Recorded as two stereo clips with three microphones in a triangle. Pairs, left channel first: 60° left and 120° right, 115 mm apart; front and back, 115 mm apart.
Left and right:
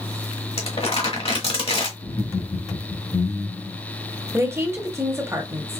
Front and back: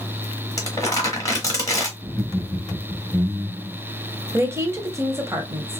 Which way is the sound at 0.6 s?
55° left.